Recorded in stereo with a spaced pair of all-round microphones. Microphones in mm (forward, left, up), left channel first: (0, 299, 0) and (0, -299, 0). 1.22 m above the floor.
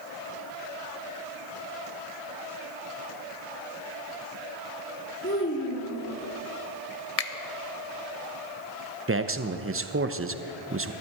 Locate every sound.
5.2 s a child speaking: 20° left (ahead or behind), 1.8 m
7.2 s a finger snap: 70° left (ahead or behind), 0.8 m
9.1 s a man speaking: 25° right (ahead or behind), 0.6 m